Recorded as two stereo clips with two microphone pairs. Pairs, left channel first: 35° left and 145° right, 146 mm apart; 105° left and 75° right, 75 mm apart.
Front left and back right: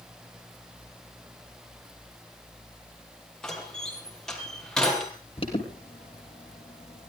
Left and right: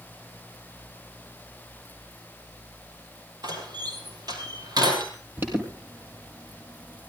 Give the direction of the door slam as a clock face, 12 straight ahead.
2 o'clock.